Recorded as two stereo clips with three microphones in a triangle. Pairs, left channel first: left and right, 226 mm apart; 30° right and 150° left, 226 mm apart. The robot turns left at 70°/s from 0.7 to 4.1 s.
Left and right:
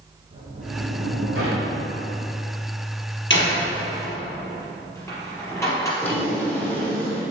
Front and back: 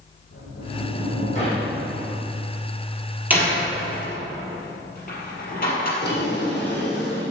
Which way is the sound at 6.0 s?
5° left.